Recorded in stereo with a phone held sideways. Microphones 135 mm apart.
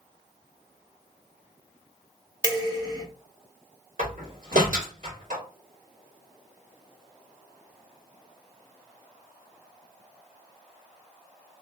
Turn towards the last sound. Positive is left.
turn(degrees=-75)  # may be behind; listen again after turning